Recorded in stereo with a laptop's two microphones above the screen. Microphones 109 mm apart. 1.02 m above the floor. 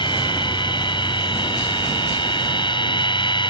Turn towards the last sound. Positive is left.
turn(degrees=50)  # may be behind; listen again after turning